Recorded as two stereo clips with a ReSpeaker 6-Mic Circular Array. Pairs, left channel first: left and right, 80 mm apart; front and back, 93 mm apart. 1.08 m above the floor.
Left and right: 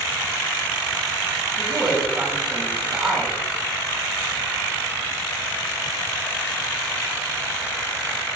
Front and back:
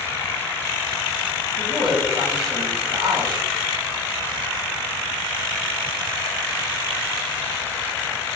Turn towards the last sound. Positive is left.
turn(degrees=-175)